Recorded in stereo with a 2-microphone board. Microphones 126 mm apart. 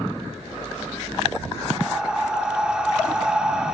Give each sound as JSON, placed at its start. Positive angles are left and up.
{"t": 1.8, "sound": "breathing", "side_deg": -5, "distance_m": 2.0}